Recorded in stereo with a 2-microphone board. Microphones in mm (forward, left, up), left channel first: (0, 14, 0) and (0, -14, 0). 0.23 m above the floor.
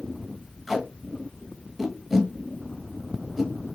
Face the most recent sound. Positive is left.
turn(degrees=0)  # may be behind; listen again after turning